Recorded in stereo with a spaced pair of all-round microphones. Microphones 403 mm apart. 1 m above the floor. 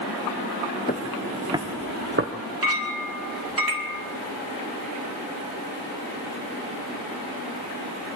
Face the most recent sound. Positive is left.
turn(degrees=-60)  # may be behind; listen again after turning